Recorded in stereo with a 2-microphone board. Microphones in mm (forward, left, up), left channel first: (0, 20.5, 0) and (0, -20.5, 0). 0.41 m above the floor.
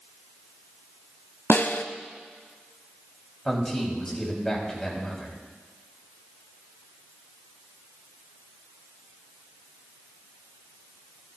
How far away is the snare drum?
About 0.6 m.